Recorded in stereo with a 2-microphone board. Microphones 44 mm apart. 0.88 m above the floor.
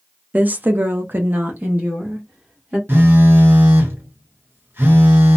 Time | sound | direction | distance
0.3 | a woman speaking | 35° right (ahead or behind) | 0.5 m
2.9 | a phone buzzing | 60° right (ahead or behind) | 0.9 m